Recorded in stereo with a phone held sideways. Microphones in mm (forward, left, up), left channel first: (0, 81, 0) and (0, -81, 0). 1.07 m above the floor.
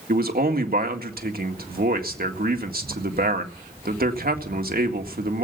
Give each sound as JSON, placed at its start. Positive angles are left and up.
{"t": 0.1, "sound": "a man speaking", "side_deg": -65, "distance_m": 1.9}